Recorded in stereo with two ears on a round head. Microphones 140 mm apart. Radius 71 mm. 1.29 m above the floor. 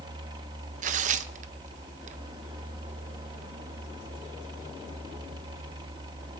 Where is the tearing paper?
50° right (ahead or behind), 0.5 m.